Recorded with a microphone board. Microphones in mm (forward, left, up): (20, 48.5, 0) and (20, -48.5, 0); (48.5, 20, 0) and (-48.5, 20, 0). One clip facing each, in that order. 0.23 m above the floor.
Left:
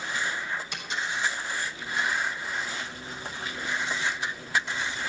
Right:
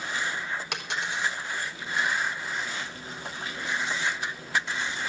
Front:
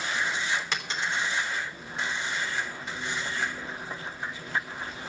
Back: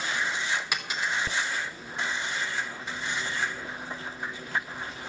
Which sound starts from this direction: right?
A dropped coin, at 0.7 s.